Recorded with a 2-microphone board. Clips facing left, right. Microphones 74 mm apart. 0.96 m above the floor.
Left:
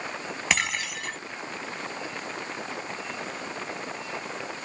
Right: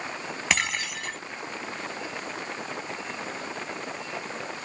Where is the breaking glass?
Centre (ahead or behind).